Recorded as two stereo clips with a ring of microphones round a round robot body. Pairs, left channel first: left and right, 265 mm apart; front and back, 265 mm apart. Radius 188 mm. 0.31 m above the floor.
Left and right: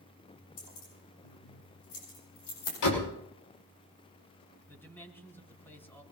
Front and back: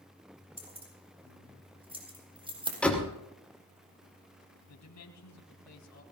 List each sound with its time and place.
0.6 s keys jangling: 110° left, 9 m
2.8 s a door slam: 85° left, 6 m
4.7 s a man speaking: 10° left, 4 m